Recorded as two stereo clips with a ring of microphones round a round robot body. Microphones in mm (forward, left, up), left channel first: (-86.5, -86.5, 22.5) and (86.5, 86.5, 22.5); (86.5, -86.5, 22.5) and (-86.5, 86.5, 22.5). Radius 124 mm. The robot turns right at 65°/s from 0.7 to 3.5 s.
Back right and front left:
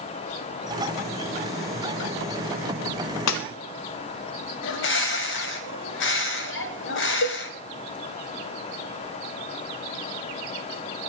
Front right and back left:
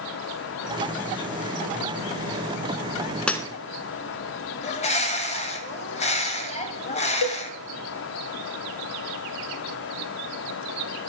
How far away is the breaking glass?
About 1.2 m.